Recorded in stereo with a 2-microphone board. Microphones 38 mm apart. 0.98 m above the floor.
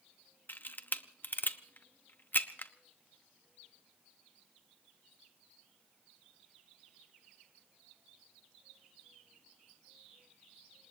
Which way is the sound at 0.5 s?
55° left (ahead or behind).